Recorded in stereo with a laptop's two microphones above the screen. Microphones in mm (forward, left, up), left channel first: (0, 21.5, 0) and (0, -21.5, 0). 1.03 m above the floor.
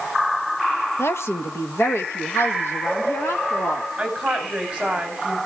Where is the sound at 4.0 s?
15° right (ahead or behind), 4.5 m.